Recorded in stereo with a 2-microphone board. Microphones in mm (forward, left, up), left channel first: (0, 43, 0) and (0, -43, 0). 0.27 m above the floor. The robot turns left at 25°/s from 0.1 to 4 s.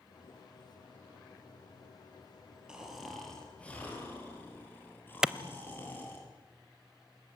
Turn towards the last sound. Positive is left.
turn(degrees=-10)  # may be behind; listen again after turning